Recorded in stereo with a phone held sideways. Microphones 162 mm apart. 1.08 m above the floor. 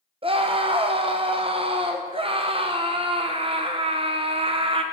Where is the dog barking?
I don't hear a dog barking.